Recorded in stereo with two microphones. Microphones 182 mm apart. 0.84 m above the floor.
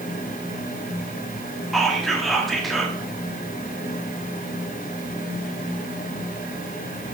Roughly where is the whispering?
Centre.